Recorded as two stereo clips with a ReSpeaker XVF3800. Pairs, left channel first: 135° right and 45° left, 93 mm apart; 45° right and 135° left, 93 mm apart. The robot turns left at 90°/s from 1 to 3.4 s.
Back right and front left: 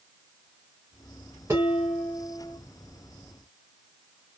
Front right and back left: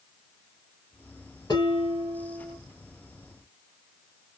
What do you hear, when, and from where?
1.5 s dishes clattering: 15° right, 1.6 m; by 2.6 s 110° right, 1.6 m